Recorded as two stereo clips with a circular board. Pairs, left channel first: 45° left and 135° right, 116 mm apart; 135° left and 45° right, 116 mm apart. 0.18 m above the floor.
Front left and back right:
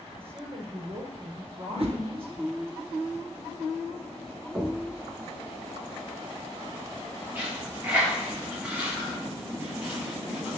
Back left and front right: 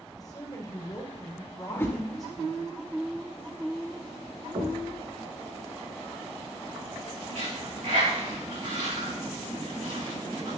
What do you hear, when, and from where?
0.2 s a woman speaking: 170° right, 3.5 m
1.7 s a whoosh: 155° right, 1.8 m
4.5 s knocking: 65° right, 6 m
7.3 s a dropped coin: 60° right, 5.5 m